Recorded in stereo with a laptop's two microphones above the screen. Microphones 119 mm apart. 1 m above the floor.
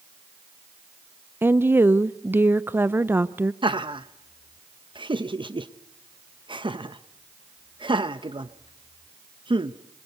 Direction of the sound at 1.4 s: 15° right (ahead or behind).